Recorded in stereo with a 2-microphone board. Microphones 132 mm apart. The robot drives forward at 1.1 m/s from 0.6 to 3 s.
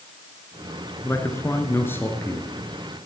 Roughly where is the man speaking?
Left.